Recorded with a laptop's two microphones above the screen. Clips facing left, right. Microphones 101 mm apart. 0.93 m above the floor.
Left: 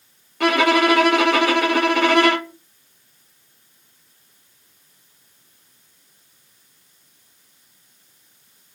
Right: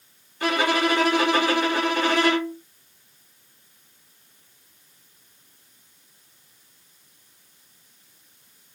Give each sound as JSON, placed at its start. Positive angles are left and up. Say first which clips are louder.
{"t": 0.4, "sound": "a violin", "louder": "left 6 dB", "side_deg": 65, "distance_m": 1.1}